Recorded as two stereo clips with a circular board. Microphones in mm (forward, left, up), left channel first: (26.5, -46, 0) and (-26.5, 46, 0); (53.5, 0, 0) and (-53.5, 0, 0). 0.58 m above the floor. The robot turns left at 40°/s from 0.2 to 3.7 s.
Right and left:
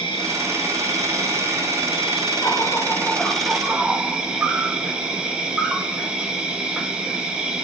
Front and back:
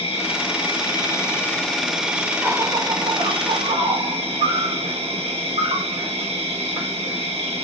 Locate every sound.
0.0 s an insect: 20° right, 0.8 m; by 7.6 s 160° right, 0.8 m